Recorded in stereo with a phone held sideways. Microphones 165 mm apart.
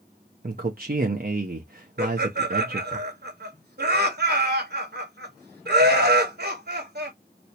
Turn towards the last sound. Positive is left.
turn(degrees=-65)  # may be behind; listen again after turning